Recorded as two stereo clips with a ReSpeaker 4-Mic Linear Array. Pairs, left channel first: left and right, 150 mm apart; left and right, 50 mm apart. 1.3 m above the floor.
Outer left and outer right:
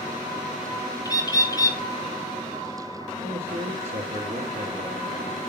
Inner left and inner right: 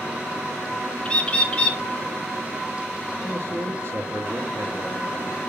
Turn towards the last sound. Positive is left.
turn(degrees=-70)  # may be behind; listen again after turning